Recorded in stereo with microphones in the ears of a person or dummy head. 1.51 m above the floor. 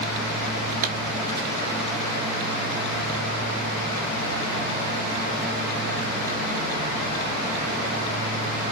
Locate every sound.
0.8 s a pop: 45° right (ahead or behind), 1.0 m